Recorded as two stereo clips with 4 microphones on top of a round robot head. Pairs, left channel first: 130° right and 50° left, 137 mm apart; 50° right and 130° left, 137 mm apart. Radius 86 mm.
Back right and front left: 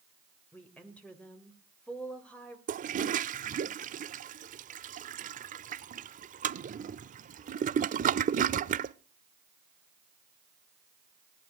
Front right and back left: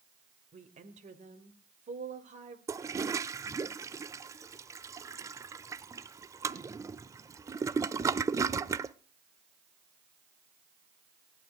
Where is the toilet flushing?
60° left, 0.6 m.